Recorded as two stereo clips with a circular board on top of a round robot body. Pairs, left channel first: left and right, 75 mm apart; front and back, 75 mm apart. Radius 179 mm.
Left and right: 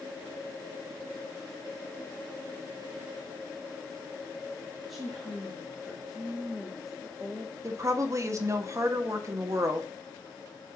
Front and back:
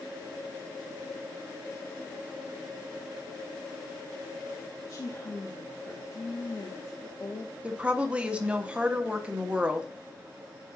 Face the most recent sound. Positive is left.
turn(degrees=-110)